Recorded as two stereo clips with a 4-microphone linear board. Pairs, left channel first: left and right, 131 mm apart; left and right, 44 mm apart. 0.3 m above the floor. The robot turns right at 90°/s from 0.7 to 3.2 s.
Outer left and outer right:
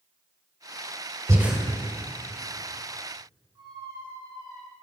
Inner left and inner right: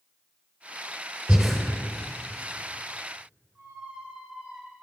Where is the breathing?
25° right (ahead or behind), 1.3 m; by 1.6 s centre (ahead or behind), 1.3 m.